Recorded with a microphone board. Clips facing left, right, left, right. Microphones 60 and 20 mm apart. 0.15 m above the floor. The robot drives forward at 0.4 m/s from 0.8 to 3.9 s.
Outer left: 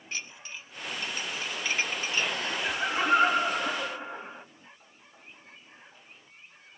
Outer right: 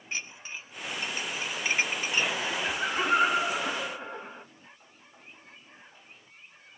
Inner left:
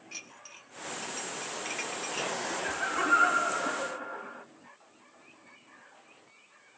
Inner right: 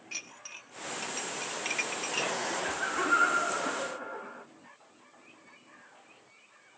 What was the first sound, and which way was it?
Dishes clattering, 20° right (ahead or behind).